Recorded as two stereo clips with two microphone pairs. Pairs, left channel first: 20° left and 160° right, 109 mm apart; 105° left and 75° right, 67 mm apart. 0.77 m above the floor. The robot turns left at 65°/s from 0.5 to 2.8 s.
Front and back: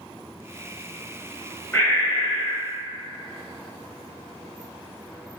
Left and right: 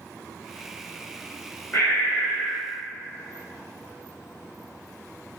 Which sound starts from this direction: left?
Breathing, at 1.7 s.